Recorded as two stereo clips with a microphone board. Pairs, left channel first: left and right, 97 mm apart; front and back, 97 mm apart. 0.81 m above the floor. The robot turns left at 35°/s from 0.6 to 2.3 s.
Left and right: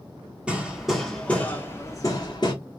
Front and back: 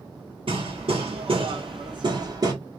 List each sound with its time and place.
0.5 s hammering: 170° right, 1.4 m; by 2.5 s 130° left, 1.4 m